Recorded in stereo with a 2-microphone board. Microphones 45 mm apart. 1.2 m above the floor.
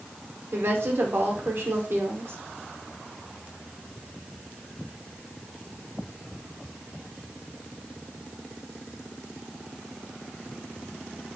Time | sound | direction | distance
0.5 | a woman speaking | 55° right (ahead or behind) | 1.2 m